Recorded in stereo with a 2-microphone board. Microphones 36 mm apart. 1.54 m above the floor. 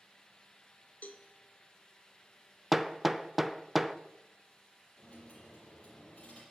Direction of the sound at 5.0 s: 35° left (ahead or behind).